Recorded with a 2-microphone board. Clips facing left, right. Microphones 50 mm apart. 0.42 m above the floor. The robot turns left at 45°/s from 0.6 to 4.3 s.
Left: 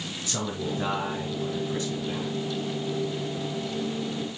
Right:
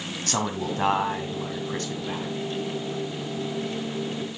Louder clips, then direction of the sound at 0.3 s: Right 4 dB; 70° right.